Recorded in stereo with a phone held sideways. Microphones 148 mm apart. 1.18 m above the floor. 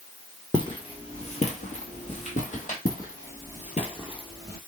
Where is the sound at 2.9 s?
65° left (ahead or behind), 3 m; by 4.6 s 15° left (ahead or behind), 1.7 m.